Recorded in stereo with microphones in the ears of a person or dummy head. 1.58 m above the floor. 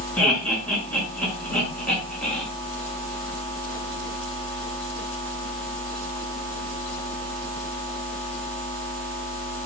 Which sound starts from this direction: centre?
Laughter, at 0.2 s.